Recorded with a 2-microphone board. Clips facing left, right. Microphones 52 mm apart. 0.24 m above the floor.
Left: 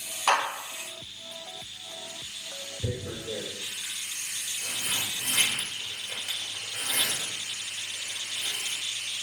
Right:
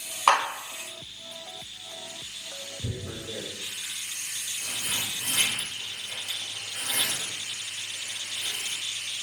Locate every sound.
0.3 s a clap: 40° right (ahead or behind), 1.4 m
2.8 s tearing paper: 60° left (ahead or behind), 1.1 m